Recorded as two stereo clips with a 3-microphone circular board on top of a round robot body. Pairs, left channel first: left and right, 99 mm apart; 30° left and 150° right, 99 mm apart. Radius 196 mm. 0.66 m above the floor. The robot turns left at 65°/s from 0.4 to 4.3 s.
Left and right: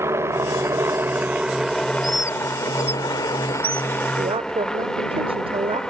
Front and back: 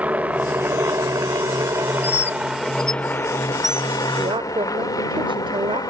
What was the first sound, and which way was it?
A helicopter, 90° right.